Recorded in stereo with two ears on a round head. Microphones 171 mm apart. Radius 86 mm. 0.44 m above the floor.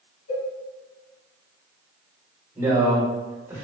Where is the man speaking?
15° right (ahead or behind), 1.6 m.